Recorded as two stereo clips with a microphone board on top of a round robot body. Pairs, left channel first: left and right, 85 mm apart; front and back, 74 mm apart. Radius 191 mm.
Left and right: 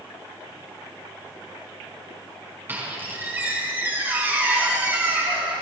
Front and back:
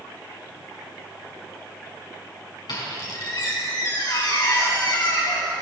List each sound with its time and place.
2.7 s a squeak: 20° right, 5 m